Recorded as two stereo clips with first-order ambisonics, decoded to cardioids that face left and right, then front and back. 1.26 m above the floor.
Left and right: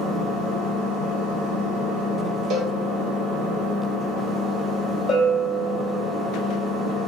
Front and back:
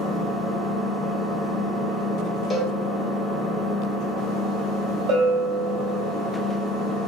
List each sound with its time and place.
0.0 s an engine running: 40° right, 1.1 m
2.5 s a cowbell: 65° right, 0.7 m
5.1 s a bell: 160° left, 1.3 m